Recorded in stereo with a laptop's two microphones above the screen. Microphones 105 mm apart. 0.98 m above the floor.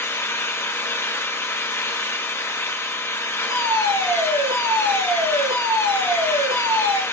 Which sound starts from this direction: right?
A fire alarm, at 3.5 s.